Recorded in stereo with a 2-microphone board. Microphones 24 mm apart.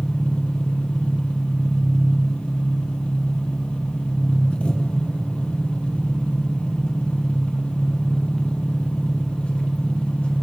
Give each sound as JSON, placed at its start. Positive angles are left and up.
{"t": 0.0, "sound": "an engine running", "side_deg": 60, "distance_m": 0.8}